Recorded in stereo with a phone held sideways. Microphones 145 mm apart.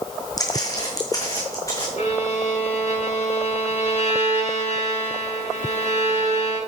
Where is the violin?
60° left (ahead or behind), 6 m.